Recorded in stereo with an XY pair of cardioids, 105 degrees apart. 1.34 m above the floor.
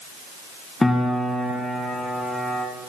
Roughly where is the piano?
Ahead.